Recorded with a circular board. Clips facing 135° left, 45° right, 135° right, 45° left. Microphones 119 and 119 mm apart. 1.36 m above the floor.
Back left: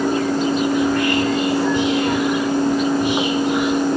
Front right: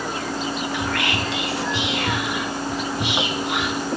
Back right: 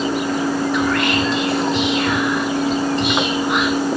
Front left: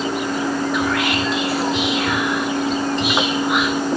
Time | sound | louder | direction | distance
0.7 | whispering | back left 8 dB, back right 2 dB | 40° right | 0.9 m